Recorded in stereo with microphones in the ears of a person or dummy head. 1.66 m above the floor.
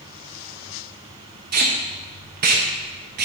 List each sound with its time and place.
1.5 s tape being pulled: 50° right (ahead or behind), 0.8 m